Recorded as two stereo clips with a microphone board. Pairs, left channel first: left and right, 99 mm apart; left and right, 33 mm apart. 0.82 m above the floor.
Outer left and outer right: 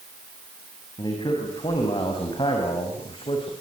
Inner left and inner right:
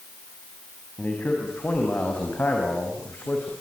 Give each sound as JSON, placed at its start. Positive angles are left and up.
{"t": 1.0, "sound": "a man speaking", "side_deg": 50, "distance_m": 5.5}